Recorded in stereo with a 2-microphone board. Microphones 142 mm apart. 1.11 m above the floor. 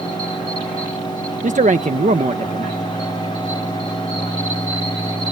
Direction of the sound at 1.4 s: 60° right (ahead or behind).